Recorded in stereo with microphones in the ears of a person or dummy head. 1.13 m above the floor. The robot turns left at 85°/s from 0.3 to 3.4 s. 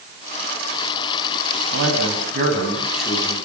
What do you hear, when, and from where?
1.7 s a man speaking: 65° right, 8.5 m; by 3.4 s 155° left, 8.5 m